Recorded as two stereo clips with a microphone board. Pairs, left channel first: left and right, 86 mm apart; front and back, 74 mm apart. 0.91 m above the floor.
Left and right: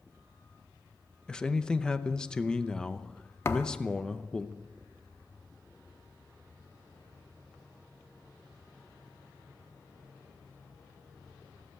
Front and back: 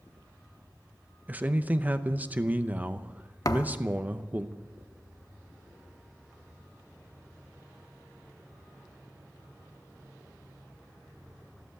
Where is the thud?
35° left, 0.8 m.